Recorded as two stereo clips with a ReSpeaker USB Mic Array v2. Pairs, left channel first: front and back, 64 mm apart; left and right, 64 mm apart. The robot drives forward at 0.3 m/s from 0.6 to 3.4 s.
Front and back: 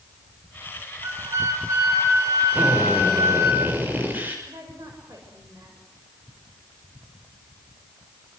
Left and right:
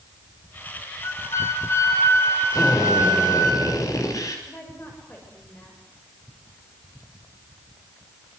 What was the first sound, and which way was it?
A flute, 135° left.